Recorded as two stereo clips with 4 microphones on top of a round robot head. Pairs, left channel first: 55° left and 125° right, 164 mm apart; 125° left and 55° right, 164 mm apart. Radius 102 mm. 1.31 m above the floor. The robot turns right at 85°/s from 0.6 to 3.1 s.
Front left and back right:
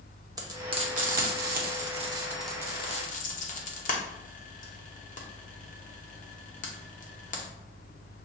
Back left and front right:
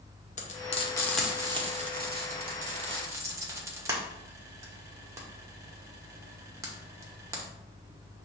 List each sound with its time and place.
0.4 s frying: 165° left, 1.0 m; by 7.5 s 20° left, 1.0 m